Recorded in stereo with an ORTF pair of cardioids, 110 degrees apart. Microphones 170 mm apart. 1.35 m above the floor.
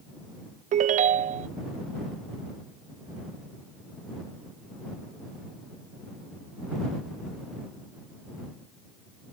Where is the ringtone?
50° right.